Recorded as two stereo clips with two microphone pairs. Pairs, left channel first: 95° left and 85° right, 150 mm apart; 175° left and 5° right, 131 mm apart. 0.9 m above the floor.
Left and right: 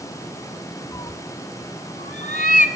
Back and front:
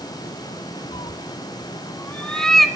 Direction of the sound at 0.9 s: 155° left.